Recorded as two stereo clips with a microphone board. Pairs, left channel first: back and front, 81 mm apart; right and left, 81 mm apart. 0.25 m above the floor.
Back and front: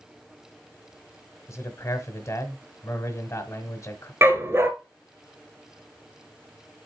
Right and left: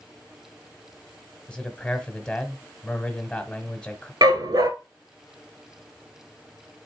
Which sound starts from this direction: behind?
A man speaking, at 1.5 s.